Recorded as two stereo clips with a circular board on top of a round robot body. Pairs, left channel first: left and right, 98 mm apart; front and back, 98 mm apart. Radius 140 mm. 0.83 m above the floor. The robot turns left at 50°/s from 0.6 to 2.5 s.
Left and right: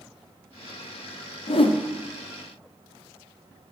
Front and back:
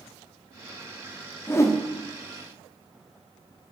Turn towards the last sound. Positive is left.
turn(degrees=15)